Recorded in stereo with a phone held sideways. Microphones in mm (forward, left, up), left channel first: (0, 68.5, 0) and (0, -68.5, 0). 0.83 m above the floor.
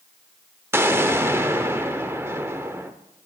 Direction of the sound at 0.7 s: 20° right (ahead or behind).